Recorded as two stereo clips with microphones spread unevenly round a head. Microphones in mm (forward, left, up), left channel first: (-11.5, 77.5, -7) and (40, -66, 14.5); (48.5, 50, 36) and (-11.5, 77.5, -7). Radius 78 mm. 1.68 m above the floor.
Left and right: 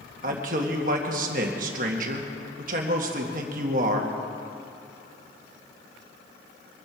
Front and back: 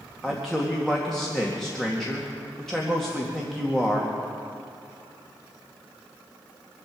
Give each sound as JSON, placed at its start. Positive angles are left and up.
{"t": 0.2, "sound": "a man speaking", "azimuth_deg": -100, "distance_m": 1.9}